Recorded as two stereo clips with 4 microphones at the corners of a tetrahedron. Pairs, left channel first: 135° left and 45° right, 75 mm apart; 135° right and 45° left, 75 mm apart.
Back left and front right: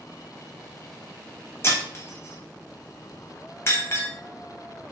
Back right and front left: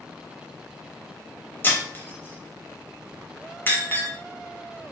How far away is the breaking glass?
About 0.7 m.